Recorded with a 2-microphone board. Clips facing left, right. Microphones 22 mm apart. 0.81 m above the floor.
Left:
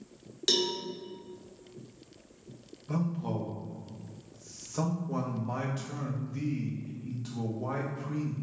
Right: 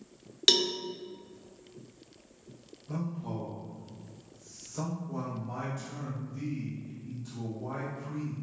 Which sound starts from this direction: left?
A man speaking, at 2.9 s.